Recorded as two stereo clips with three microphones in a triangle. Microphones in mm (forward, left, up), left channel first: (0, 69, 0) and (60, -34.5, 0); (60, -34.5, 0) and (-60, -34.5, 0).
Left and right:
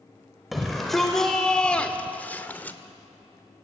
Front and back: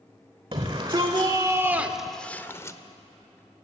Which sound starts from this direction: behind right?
A shout, at 0.5 s.